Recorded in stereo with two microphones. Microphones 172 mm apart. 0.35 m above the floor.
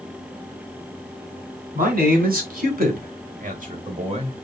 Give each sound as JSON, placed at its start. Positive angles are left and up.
{"t": 1.8, "sound": "a man speaking", "side_deg": -60, "distance_m": 2.0}